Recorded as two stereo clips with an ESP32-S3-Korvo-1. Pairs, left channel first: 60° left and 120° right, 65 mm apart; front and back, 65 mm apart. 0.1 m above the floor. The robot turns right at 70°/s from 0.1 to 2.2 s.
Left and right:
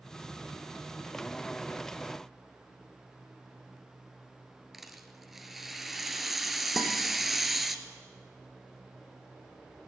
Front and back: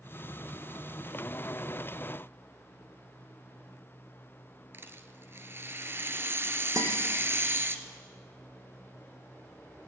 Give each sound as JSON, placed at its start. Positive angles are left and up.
{"t": 4.7, "sound": "a rattle", "azimuth_deg": 155, "distance_m": 1.5}
{"t": 6.8, "sound": "a guitar", "azimuth_deg": 150, "distance_m": 4.0}